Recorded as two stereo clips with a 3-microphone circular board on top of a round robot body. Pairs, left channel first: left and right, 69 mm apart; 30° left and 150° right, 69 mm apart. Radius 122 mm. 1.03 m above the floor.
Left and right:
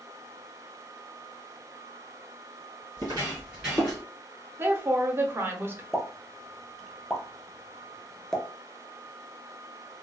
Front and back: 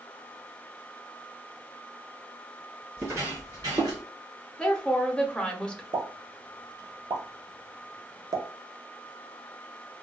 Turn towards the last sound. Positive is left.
turn(degrees=175)